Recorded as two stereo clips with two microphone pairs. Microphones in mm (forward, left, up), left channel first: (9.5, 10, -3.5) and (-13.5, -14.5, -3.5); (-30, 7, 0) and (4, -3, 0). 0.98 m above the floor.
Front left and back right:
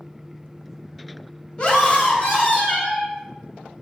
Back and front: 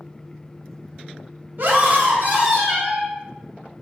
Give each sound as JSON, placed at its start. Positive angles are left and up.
{"t": 1.6, "sound": "a scream", "azimuth_deg": 0, "distance_m": 0.9}